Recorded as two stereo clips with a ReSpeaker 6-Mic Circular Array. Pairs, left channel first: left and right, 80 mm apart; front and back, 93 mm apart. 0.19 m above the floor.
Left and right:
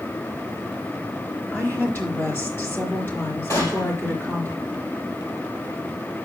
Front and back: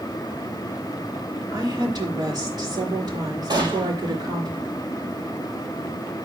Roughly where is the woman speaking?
Behind left.